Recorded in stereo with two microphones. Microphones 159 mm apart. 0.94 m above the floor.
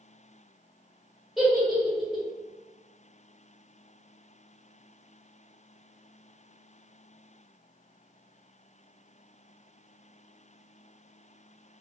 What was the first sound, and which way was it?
A giggle, centre (ahead or behind).